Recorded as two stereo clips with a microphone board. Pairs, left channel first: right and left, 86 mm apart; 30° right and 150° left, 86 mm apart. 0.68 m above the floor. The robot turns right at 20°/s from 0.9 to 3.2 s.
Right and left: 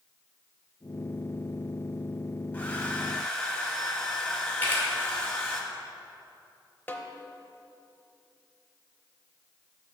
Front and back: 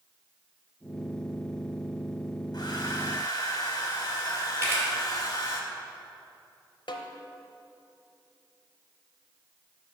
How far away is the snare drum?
About 0.6 m.